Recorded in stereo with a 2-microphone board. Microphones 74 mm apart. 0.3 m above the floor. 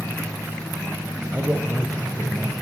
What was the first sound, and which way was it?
A man speaking, 20° right (ahead or behind).